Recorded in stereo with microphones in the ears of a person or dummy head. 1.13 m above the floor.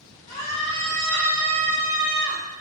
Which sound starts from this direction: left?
A scream, at 0.3 s.